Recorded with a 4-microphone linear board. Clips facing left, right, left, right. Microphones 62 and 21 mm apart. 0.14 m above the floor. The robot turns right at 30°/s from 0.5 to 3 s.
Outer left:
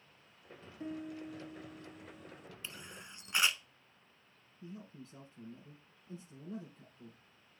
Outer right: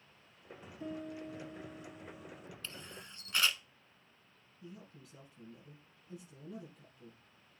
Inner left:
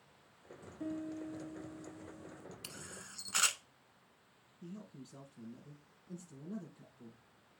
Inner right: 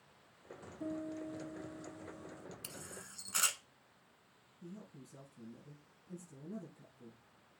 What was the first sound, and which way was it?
A piano, 145° left.